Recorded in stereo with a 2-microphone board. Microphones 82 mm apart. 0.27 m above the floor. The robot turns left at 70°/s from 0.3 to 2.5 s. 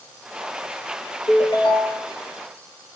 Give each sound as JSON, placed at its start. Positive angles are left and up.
{"t": 1.3, "sound": "a ringtone", "azimuth_deg": 115, "distance_m": 2.5}